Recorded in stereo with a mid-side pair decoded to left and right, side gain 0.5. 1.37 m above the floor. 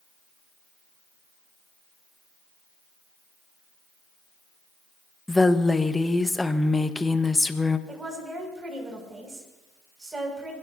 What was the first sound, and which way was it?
A woman speaking, 15° left.